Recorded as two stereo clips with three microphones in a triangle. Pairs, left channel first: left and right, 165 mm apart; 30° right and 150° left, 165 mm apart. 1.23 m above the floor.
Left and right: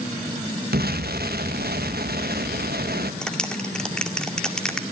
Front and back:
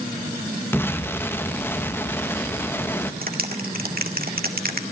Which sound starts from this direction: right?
An explosion, at 0.7 s.